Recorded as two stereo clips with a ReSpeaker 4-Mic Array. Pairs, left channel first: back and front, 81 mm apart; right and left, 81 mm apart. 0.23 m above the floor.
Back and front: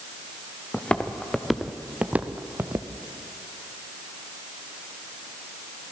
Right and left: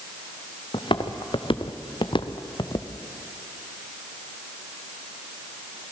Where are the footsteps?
105° right, 1.8 m; by 2.9 s 55° right, 1.6 m.